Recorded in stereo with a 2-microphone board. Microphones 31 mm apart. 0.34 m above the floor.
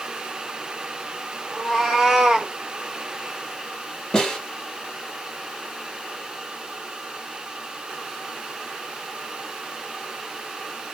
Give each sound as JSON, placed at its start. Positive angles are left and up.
{"t": 1.5, "sound": "a cat meowing", "side_deg": -5, "distance_m": 1.1}
{"t": 4.1, "sound": "a snare drum", "side_deg": 25, "distance_m": 1.3}